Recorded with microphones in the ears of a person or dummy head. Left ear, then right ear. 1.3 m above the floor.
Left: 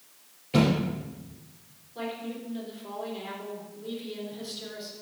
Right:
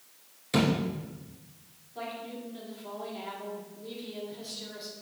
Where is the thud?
45° right (ahead or behind), 2 m.